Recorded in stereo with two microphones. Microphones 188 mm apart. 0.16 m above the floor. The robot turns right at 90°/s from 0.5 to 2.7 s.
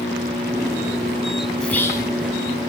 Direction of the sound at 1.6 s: 5° left (ahead or behind).